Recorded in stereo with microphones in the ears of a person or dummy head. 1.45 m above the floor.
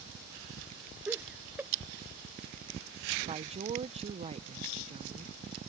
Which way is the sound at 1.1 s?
10° right (ahead or behind).